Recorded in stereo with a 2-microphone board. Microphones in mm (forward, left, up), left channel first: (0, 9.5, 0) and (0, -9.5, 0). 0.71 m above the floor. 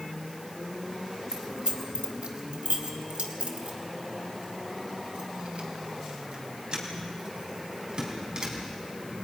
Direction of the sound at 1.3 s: 65° right (ahead or behind).